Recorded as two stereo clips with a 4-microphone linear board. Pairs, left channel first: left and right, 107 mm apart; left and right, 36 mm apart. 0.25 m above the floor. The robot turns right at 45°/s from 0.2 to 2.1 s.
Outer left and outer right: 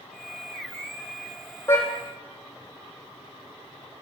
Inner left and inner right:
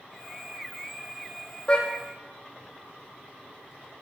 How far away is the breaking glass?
No breaking glass in this recording.